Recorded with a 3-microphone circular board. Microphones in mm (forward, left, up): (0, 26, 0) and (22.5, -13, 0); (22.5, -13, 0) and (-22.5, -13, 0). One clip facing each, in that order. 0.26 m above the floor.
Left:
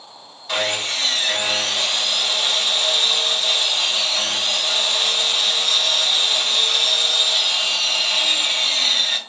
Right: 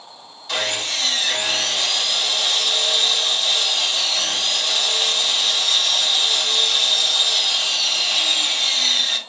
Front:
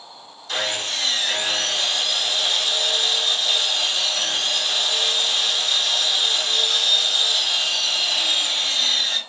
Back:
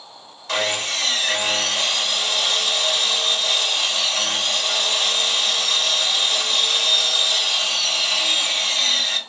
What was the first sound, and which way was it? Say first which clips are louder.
Sawing: left 1 dB, back 3 dB; 160° right.